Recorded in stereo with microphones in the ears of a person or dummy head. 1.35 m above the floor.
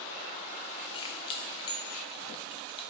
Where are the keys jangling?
35° left (ahead or behind), 0.6 m.